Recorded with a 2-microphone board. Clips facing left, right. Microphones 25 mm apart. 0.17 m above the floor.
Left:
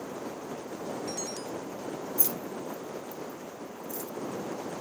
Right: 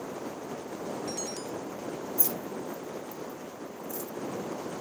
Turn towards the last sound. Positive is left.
turn(degrees=20)  # may be behind; listen again after turning